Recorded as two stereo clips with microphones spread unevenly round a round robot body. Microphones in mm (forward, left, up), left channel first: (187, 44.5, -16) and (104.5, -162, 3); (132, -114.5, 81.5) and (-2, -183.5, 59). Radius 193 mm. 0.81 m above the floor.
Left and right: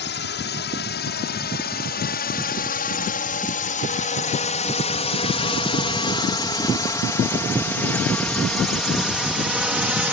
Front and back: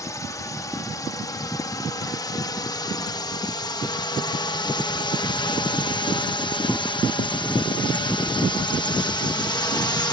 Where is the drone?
100° left; by 10.1 s 30° right.